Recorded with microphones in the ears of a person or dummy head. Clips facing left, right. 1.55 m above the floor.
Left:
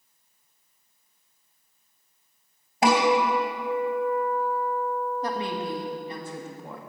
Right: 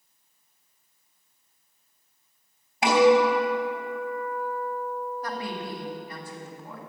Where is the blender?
No blender in this recording.